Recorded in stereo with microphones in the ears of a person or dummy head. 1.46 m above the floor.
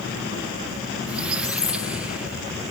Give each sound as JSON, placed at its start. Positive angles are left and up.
{"t": 1.1, "sound": "a squeak", "side_deg": -5}